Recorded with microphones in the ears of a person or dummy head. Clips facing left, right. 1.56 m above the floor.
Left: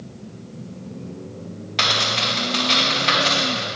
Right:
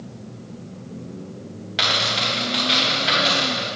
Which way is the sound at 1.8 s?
5° right (ahead or behind).